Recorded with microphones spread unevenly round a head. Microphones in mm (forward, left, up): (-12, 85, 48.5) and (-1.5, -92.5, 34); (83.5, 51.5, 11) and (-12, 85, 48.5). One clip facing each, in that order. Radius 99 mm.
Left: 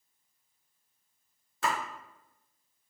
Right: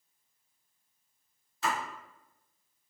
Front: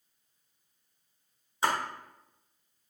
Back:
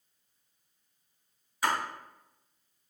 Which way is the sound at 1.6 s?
50° left.